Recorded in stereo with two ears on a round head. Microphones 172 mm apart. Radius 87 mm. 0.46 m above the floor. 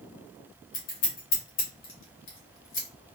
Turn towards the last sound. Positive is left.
turn(degrees=50)  # may be behind; listen again after turning